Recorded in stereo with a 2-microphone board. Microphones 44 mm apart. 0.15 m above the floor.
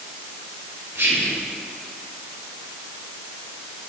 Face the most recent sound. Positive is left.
turn(degrees=-55)  # may be behind; listen again after turning